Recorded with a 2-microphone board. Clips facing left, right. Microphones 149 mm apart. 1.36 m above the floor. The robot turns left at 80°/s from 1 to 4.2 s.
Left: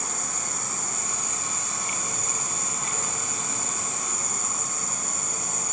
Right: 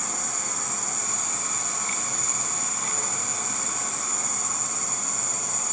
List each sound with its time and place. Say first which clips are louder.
0.0 s an insect: even; 95° right, 1.9 m; by 5.7 s 5° left, 1.9 m